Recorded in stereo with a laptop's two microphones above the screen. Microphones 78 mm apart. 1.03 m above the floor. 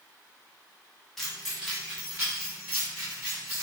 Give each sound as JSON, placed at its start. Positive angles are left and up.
{"t": 1.2, "sound": "keys jangling", "side_deg": 5, "distance_m": 0.6}